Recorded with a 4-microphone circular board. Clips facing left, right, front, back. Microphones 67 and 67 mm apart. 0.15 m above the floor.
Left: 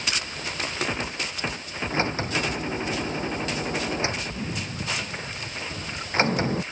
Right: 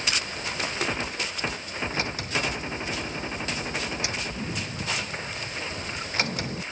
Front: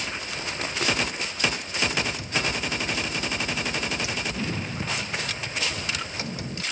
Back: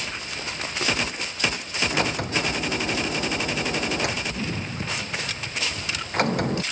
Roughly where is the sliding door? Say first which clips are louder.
Left 6 dB, back 3 dB; behind left.